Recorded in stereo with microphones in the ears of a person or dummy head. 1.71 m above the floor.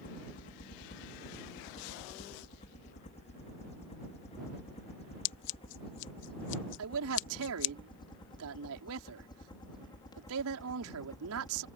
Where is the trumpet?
No trumpet in this recording.